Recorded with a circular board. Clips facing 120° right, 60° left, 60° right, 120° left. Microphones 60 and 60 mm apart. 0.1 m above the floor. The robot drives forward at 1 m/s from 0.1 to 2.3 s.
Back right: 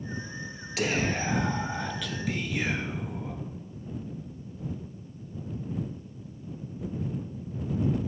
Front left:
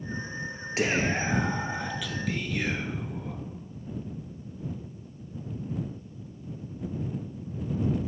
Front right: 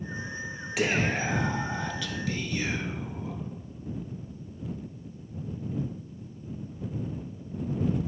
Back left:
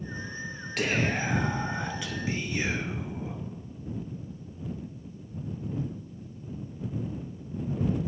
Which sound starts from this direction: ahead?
Whispering, at 0.8 s.